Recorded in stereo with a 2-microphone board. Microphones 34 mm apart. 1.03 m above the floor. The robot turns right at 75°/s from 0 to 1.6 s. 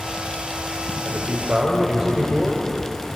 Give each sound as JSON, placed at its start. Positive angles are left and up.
{"t": 1.1, "sound": "a man speaking", "azimuth_deg": -55, "distance_m": 4.5}